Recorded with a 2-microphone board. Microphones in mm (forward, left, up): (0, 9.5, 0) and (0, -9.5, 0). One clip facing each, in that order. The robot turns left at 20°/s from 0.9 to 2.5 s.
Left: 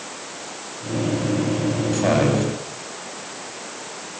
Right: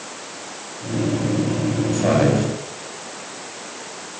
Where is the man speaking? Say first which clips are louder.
Right 2 dB; 15° left (ahead or behind), 9.5 m; by 2.5 s 5° left (ahead or behind), 9.5 m.